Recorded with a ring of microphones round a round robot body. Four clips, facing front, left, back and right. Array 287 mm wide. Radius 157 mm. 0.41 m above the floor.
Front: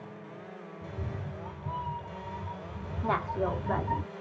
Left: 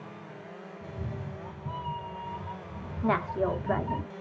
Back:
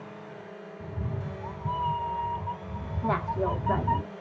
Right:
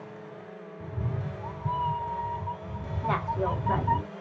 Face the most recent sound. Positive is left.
turn(degrees=90)